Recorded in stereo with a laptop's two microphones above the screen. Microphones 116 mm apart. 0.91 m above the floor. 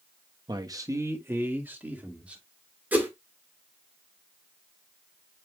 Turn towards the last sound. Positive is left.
turn(degrees=-15)  # may be behind; listen again after turning